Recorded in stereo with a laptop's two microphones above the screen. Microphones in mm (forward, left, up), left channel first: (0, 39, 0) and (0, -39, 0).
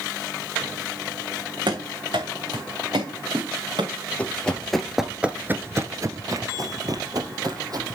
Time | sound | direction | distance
1.7 | running footsteps | 70° right (ahead or behind) | 3.5 m
4.2 | running footsteps | 15° left (ahead or behind) | 1.7 m